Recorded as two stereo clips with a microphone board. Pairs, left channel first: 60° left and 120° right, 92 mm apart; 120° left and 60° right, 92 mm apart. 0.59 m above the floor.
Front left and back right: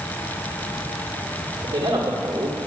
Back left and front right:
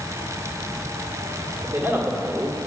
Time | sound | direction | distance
1.6 | a man speaking | 125° right | 1.6 m